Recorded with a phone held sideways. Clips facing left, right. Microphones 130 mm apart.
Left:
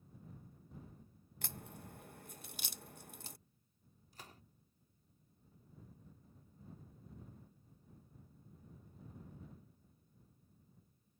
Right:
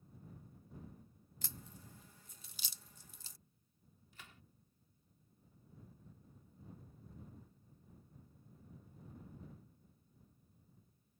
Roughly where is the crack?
Left.